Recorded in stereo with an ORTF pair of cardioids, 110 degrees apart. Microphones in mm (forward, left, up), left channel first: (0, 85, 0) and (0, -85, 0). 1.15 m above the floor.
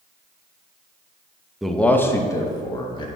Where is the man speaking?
Straight ahead, 0.8 m; by 3.1 s 30° left, 1.8 m.